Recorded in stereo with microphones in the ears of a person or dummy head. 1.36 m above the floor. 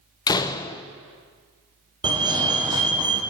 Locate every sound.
0.3 s a door slam: 20° left (ahead or behind), 0.6 m
2.0 s a fire alarm: 25° right (ahead or behind), 1.4 m